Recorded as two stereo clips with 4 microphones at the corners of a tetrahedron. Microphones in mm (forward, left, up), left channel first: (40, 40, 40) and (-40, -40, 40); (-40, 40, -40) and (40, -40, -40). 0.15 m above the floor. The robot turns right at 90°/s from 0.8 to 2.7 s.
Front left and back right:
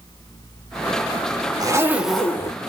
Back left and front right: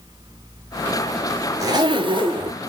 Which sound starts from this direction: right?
A zipper, at 1.6 s.